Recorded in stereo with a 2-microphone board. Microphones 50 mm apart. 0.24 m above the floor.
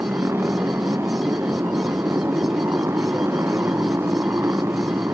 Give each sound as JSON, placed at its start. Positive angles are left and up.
{"t": 0.0, "sound": "a motorcycle", "side_deg": -60}